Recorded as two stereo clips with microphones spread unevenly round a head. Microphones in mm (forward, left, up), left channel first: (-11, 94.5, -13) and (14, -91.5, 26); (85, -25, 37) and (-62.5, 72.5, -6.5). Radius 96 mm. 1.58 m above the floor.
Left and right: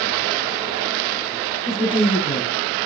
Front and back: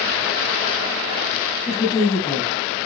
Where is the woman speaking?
35° left, 1.2 m.